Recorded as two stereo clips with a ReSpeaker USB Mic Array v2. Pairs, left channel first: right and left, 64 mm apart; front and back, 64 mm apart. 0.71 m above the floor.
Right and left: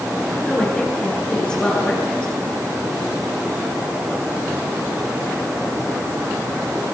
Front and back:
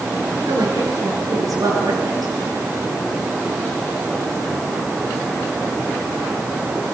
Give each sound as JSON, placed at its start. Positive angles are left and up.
{"t": 0.5, "sound": "a woman speaking", "azimuth_deg": -165, "distance_m": 9.5}